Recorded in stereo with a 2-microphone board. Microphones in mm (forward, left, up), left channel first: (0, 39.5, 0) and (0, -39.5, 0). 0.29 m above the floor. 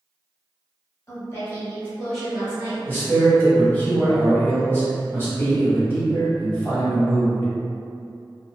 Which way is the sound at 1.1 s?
35° left (ahead or behind).